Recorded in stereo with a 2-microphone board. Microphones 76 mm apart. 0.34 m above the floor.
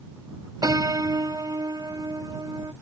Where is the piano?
60° right (ahead or behind).